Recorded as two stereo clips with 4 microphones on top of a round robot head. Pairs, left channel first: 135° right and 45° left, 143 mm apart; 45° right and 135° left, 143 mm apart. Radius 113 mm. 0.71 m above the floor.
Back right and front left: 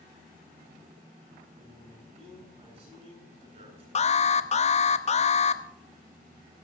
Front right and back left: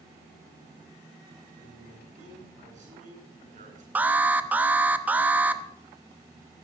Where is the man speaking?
95° left, 9.5 m.